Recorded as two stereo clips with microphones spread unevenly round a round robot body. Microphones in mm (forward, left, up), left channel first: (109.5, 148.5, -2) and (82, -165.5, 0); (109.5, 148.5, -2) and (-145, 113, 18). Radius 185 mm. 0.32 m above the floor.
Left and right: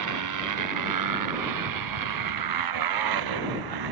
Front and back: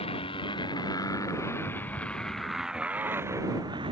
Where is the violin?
I don't hear a violin.